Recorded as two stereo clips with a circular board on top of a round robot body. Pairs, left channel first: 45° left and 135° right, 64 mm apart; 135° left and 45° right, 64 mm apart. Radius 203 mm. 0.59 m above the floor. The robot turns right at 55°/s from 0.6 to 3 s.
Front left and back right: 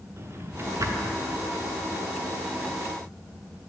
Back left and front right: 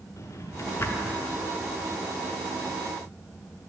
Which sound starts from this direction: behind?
A drawer, at 0.2 s.